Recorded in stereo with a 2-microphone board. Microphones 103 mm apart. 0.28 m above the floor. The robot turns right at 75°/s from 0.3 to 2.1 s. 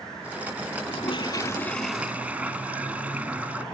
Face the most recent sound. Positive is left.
turn(degrees=-165)